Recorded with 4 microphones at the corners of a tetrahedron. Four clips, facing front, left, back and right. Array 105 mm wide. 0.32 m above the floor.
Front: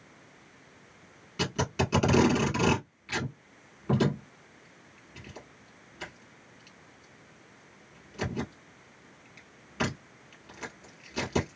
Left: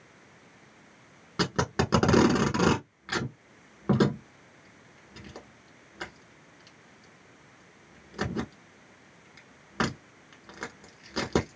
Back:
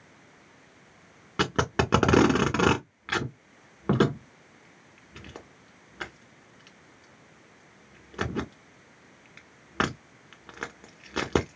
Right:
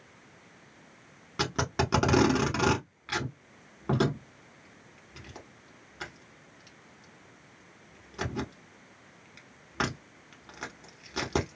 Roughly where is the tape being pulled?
Behind.